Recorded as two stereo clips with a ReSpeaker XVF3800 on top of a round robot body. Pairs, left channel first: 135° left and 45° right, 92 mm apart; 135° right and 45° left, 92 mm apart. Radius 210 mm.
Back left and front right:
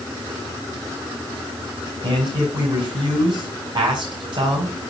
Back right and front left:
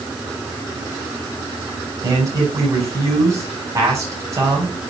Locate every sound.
2.0 s a man speaking: 10° right, 5 m